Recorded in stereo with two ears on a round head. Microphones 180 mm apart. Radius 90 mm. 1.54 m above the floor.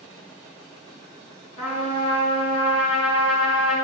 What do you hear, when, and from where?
1.6 s a trumpet: 35° left (ahead or behind), 4.5 m